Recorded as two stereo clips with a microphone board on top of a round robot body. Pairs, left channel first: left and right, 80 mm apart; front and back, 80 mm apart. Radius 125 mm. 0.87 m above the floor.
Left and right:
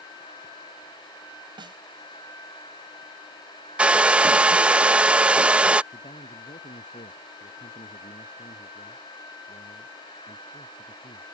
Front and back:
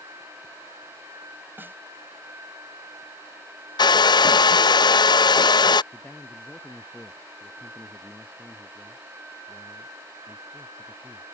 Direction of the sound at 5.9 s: 80° left.